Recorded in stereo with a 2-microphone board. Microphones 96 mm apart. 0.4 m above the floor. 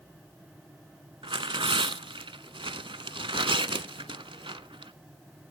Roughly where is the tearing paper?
Right.